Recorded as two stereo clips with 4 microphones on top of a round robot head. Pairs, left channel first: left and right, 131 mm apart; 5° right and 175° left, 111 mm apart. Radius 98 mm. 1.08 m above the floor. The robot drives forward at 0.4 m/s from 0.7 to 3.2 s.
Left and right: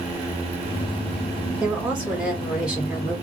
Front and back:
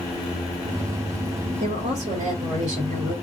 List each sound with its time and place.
1.6 s a woman speaking: 170° right, 2 m; by 3.1 s 175° right, 2.5 m